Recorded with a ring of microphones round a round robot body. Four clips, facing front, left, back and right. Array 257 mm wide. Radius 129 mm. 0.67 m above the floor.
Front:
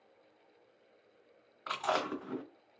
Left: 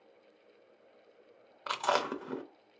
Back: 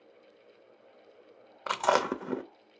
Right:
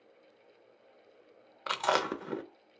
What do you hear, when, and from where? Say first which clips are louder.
1.7 s chewing: right 1 dB, back 7 dB; 165° right, 0.6 m